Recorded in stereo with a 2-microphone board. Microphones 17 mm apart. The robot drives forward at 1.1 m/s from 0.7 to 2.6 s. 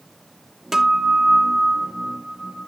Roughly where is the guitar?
Right.